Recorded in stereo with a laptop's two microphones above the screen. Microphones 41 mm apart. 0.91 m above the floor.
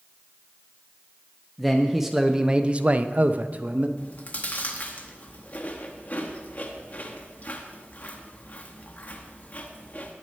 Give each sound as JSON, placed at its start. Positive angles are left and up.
{"t": 1.6, "sound": "a man speaking", "side_deg": 0, "distance_m": 0.9}
{"t": 4.0, "sound": "chewing", "side_deg": 40, "distance_m": 1.1}